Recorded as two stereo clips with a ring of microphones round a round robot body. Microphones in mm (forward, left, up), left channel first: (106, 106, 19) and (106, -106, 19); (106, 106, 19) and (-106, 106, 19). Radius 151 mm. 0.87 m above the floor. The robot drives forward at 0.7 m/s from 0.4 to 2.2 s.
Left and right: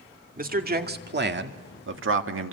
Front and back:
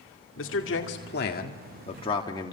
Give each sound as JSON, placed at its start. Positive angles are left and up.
{"t": 0.4, "sound": "a man speaking", "azimuth_deg": -40, "distance_m": 2.5}